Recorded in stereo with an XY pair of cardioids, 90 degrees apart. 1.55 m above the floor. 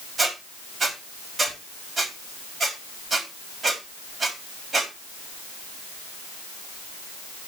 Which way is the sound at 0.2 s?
40° right.